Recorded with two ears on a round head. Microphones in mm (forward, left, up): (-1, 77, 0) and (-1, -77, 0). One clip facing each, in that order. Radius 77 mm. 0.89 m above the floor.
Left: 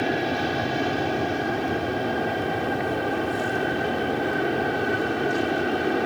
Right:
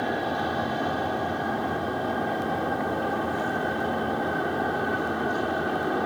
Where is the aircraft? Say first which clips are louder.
Left 3 dB; 30° left (ahead or behind).